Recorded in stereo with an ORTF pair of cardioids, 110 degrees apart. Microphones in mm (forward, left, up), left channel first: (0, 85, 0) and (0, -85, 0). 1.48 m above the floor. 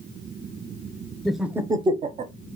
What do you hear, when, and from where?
1.2 s laughter: 5° left, 0.6 m; by 2.3 s 50° right, 0.6 m